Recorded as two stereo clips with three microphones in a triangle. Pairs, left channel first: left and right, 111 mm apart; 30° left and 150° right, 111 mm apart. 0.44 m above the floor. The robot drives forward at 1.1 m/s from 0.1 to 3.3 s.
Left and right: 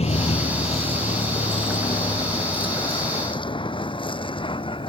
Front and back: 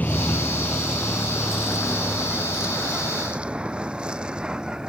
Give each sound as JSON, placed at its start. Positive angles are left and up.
{"t": 0.0, "sound": "a vehicle", "azimuth_deg": 105}